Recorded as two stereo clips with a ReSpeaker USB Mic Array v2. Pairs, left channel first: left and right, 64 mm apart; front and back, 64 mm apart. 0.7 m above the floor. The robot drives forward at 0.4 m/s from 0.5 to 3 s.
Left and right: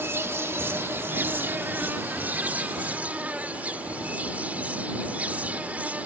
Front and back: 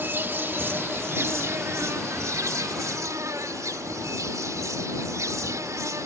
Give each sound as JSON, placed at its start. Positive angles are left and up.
{"t": 0.0, "sound": "an insect", "azimuth_deg": -130}